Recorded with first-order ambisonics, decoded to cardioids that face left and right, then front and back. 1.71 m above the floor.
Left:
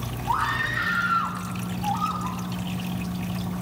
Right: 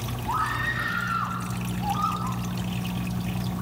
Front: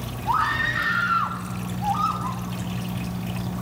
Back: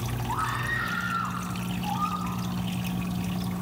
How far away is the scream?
About 3.5 m.